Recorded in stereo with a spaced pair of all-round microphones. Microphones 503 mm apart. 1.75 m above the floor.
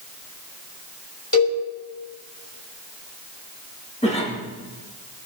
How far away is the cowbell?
About 6 m.